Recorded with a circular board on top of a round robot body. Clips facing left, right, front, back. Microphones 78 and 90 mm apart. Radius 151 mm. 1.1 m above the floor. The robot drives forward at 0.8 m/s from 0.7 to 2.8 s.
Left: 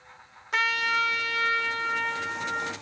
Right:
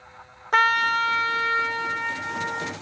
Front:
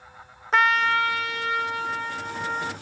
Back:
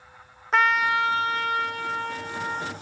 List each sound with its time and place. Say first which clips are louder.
0.5 s a trumpet: right 6 dB, front 1 dB; 90° right, 0.6 m; by 2.7 s 165° right, 1.7 m